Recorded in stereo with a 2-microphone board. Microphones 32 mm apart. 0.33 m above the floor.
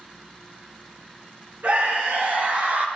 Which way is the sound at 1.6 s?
65° right (ahead or behind).